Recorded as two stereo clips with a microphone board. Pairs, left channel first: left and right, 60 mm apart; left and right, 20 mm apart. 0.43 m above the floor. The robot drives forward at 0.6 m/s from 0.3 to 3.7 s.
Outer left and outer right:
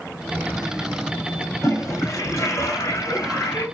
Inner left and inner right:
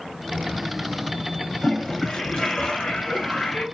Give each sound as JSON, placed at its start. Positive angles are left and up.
{"t": 1.6, "sound": "a toilet flushing", "side_deg": 60, "distance_m": 2.5}